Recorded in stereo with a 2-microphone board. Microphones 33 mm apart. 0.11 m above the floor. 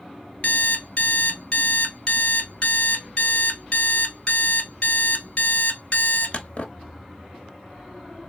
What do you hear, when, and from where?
0.4 s an alarm clock: 40° left (ahead or behind), 1.2 m